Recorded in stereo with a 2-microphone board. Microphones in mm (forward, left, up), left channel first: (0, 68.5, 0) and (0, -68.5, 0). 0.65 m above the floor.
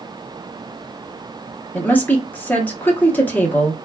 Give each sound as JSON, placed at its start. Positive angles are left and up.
{"t": 1.7, "sound": "a woman speaking", "side_deg": 15, "distance_m": 0.9}